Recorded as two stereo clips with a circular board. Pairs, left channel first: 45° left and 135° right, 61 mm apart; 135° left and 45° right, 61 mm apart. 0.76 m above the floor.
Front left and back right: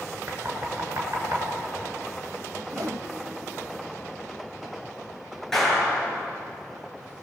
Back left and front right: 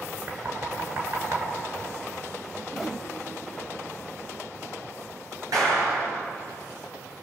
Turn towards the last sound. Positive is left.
turn(degrees=-40)